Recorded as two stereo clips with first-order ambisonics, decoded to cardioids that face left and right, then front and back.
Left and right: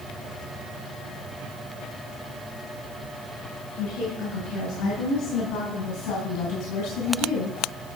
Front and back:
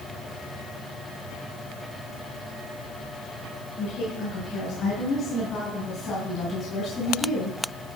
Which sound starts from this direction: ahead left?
A woman speaking, at 3.8 s.